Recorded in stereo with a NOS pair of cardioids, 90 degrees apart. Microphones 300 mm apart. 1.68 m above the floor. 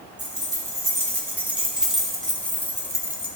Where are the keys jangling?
15° right, 3.5 m; by 3.3 s 15° left, 1.9 m.